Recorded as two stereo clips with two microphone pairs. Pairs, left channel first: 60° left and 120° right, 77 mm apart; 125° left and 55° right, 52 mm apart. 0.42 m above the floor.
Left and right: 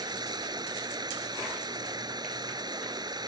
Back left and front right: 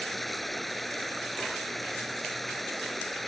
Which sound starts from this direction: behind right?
Running water, at 0.0 s.